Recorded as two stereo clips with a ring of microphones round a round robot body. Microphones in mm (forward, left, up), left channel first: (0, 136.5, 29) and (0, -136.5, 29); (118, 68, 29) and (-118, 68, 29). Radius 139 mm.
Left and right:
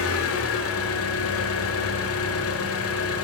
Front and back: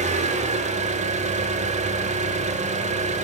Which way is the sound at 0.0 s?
120° left.